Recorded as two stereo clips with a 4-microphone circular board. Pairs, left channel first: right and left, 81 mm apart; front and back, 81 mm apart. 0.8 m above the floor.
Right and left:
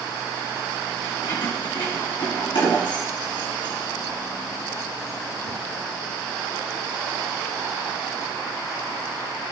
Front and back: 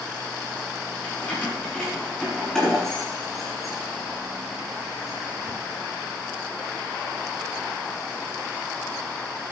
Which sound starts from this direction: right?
Keys jangling, at 1.0 s.